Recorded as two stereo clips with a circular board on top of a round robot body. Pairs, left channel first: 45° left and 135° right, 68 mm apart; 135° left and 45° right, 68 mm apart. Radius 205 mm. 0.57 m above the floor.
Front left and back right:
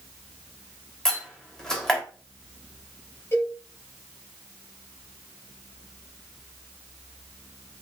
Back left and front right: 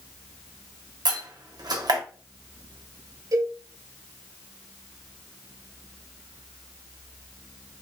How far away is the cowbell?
About 3.5 m.